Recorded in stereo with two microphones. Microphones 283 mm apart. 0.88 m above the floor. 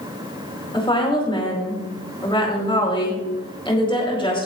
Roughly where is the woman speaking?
Centre.